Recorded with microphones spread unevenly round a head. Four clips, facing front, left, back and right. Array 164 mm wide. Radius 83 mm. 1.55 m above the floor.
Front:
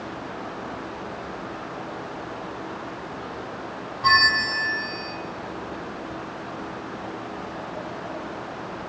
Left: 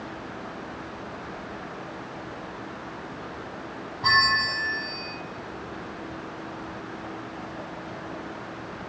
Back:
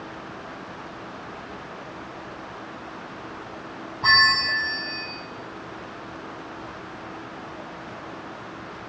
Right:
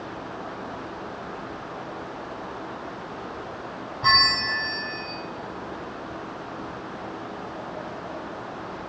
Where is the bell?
100° right, 5 m.